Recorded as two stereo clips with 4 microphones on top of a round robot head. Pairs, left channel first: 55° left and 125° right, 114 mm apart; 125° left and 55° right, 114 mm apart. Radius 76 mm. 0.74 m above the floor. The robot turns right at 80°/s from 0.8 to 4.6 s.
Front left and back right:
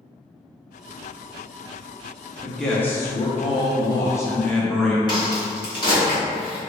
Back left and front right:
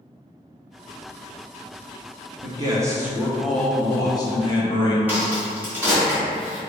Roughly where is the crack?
Ahead.